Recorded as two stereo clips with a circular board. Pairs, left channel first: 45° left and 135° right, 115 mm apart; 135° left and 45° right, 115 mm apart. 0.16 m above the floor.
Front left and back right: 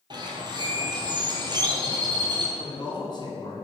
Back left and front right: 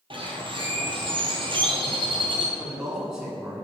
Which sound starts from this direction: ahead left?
A man speaking, at 2.6 s.